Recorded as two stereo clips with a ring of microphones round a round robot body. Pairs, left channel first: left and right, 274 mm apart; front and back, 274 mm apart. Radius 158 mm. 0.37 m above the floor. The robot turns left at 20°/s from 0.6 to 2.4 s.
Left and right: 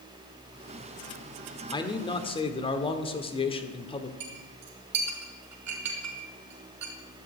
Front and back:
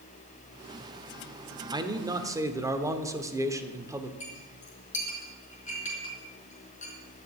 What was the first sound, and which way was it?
A man speaking, 135° left.